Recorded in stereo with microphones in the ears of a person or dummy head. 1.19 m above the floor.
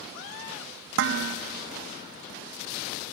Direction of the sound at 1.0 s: 70° right (ahead or behind).